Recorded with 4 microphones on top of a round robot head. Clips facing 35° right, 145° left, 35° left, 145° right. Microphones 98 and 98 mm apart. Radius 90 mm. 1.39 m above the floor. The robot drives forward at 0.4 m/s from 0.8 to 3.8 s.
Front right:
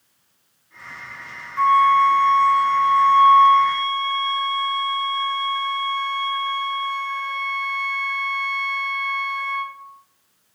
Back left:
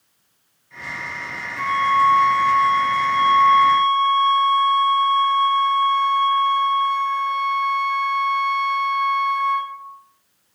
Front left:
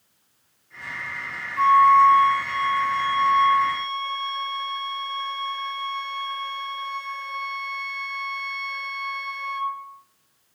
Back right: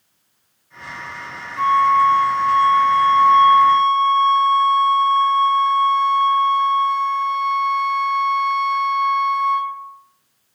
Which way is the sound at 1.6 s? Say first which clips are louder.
Front right 4 dB, even; 130° left.